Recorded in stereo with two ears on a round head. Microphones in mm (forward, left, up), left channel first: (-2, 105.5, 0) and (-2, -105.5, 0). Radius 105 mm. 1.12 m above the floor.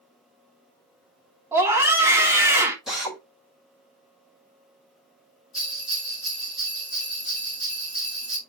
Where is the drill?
Centre (ahead or behind), 4.5 m.